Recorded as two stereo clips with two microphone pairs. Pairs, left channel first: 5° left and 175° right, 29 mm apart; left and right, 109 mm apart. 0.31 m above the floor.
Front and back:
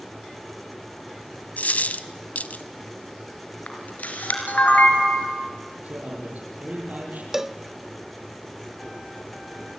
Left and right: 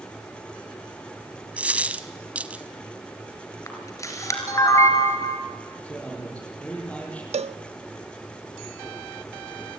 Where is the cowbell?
95° right, 0.5 m.